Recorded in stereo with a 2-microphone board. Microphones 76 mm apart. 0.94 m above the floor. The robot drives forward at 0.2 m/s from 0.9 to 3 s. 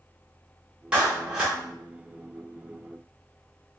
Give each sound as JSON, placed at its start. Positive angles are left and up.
{"t": 0.9, "sound": "a clap", "side_deg": -15, "distance_m": 1.7}